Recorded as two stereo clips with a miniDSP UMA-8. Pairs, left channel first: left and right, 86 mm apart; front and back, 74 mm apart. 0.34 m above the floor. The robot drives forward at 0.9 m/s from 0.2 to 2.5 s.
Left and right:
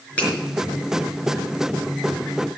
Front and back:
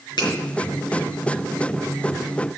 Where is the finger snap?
15° left, 4.5 m.